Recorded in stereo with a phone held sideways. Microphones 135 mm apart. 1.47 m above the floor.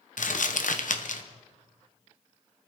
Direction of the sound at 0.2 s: 75° left (ahead or behind).